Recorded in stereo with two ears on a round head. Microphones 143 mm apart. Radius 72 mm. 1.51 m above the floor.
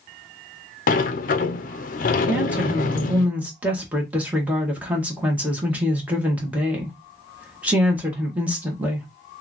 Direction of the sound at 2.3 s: 10° right (ahead or behind).